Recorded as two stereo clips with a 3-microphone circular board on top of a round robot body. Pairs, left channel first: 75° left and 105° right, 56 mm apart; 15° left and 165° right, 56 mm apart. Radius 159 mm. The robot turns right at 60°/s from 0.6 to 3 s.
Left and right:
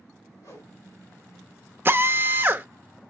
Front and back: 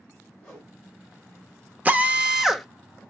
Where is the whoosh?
80° left, 3.5 m; by 0.8 s 90° left, 3.5 m.